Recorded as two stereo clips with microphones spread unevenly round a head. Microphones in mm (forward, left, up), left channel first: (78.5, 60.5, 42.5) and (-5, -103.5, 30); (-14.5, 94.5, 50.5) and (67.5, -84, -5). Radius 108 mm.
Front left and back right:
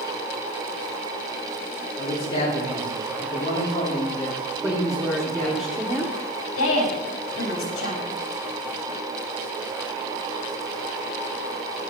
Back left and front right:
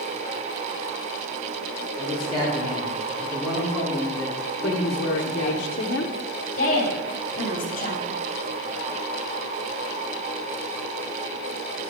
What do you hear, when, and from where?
2.0 s a man speaking: 5° left, 4 m; by 5.6 s 20° right, 2 m
4.6 s a woman speaking: 165° left, 0.9 m
6.6 s a woman speaking: 65° left, 4 m